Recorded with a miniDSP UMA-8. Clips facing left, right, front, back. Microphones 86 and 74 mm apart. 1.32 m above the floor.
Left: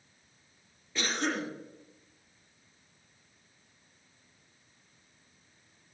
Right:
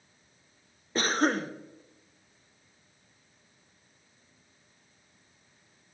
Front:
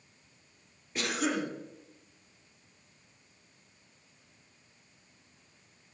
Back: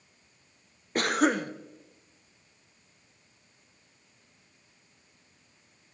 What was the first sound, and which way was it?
A cough, 135° right.